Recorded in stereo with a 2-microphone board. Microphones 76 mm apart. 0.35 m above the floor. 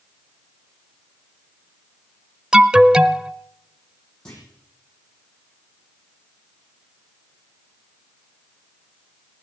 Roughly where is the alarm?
Centre.